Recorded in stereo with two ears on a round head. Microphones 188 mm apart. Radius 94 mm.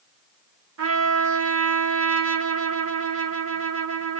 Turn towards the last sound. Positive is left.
turn(degrees=-70)  # may be behind; listen again after turning